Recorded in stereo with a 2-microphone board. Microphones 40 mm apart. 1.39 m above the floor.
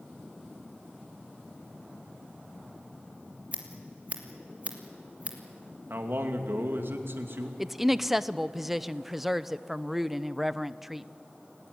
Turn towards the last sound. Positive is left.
turn(degrees=-5)  # may be behind; listen again after turning